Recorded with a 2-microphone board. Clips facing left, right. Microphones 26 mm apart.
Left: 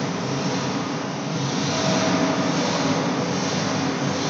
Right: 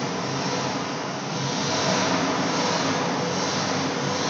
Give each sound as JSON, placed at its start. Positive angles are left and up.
{"t": 0.0, "sound": "an engine running", "side_deg": -40, "distance_m": 1.7}